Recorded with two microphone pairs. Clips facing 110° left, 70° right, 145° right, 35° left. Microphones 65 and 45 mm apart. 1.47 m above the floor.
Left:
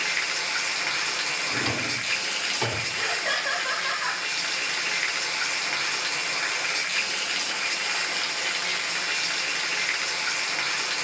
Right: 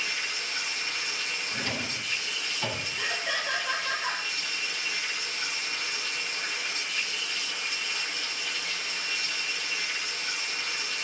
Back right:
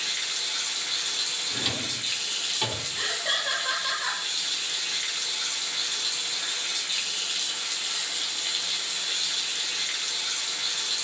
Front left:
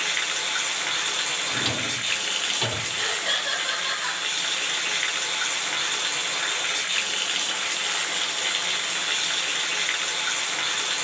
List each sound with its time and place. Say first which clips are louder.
0.0 s running water: left 5 dB, front left 6 dB; 85° left, 1.0 m
1.5 s a drawer: left 6 dB, front left 4 dB; 120° left, 2.5 m
3.0 s laughter: left 4 dB, front left 1 dB; 130° left, 3.5 m